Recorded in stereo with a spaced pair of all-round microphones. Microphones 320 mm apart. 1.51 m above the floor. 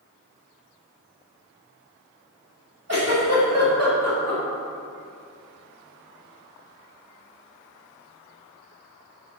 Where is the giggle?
50° right (ahead or behind), 2 m.